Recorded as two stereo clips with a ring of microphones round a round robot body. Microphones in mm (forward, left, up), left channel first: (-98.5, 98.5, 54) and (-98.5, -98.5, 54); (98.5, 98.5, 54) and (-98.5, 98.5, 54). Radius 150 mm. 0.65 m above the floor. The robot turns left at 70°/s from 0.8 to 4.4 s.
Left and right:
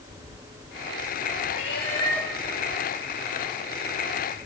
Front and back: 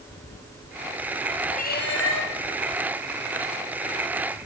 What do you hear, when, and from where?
1.5 s a cat meowing: 50° left, 3 m; by 2.3 s 5° right, 3 m